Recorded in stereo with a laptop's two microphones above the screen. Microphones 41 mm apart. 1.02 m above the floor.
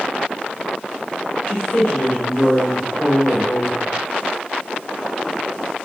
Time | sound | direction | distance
1.5 | a woman speaking | 55° left (ahead or behind) | 1.7 m